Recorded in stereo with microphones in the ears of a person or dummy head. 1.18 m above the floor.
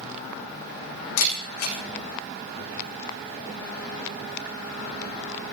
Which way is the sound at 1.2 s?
75° left (ahead or behind).